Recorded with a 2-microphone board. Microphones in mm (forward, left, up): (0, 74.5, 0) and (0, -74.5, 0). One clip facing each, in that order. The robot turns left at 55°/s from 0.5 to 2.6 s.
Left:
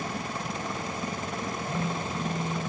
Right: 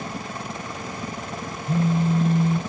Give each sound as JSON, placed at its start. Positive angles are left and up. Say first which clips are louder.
{"t": 1.7, "sound": "a phone buzzing", "louder": "right 14 dB", "azimuth_deg": -50, "distance_m": 1.0}